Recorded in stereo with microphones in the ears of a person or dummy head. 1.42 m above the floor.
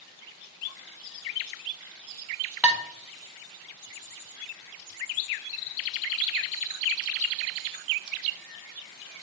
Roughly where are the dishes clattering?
Centre.